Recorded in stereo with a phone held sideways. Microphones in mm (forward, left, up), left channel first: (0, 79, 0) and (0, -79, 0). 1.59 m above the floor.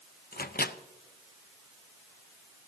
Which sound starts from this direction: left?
A microwave, at 0.3 s.